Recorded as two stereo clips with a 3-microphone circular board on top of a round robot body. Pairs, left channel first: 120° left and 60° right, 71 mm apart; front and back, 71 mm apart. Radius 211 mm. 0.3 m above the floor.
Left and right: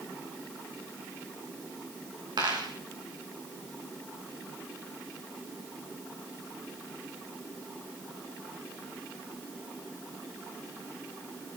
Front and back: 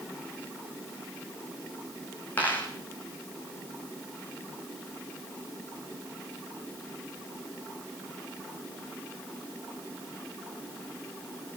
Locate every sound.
2.4 s a dropped coin: 65° right, 8 m